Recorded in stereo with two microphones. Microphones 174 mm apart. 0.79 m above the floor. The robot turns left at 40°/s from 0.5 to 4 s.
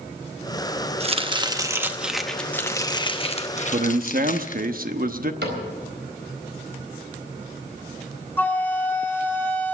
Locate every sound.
1.0 s chopping: 130° right, 0.9 m; by 4.7 s 110° left, 0.9 m
3.7 s a man speaking: 45° right (ahead or behind), 0.9 m; by 5.3 s 55° right (ahead or behind), 0.9 m
5.4 s a cupboard door: 80° right, 4 m
8.4 s a flute: 10° left (ahead or behind), 0.9 m